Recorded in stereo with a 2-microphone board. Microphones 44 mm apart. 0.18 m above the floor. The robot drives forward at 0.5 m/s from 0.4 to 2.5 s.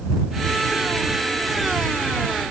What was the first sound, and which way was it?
Only background noise.